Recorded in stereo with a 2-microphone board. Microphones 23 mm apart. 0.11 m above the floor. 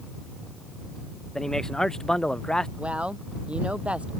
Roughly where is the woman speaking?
Right.